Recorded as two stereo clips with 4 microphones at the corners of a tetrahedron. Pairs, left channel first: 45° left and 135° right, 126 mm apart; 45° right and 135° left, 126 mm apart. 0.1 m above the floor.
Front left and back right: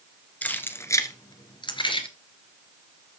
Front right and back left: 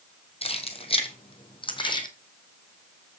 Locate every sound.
0.4 s keys jangling: 30° right, 1.4 m; by 2.1 s 5° left, 1.9 m